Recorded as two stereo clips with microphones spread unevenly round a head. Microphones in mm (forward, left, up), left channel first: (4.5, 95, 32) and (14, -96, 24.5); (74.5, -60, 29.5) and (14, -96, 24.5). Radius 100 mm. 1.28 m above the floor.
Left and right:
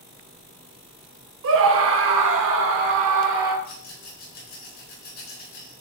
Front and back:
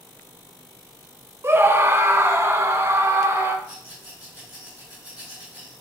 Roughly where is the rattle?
Behind left.